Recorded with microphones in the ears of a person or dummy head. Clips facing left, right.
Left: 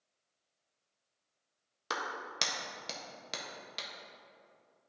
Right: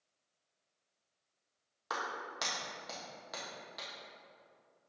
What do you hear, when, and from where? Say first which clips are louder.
1.9 s a clap: left 1 dB; 40° left (ahead or behind), 1.3 m